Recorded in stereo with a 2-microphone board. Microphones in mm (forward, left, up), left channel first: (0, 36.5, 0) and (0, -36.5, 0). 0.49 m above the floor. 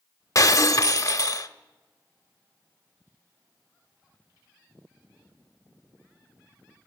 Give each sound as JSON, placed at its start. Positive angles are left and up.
{"t": 0.3, "sound": "breaking glass", "side_deg": 45, "distance_m": 0.6}